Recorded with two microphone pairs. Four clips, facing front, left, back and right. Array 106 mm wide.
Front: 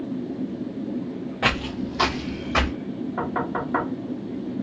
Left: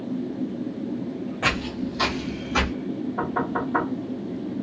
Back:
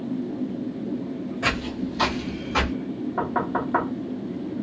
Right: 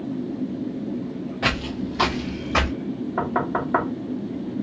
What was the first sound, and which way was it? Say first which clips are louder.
Footsteps: right 1 dB, front 3 dB; 5° right.